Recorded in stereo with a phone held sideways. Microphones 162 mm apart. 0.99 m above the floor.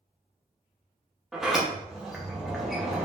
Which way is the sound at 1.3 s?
Centre (ahead or behind).